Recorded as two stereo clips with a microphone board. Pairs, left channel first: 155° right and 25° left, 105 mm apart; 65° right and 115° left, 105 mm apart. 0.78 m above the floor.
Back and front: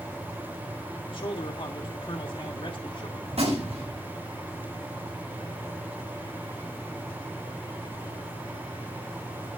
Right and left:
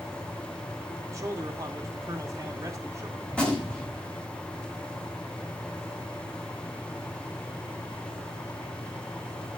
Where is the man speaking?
170° left, 2 m.